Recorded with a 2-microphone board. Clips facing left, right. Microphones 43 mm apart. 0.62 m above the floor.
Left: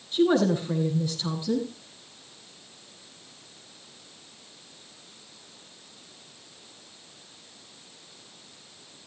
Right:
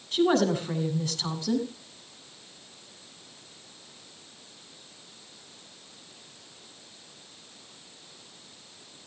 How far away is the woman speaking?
About 8.5 m.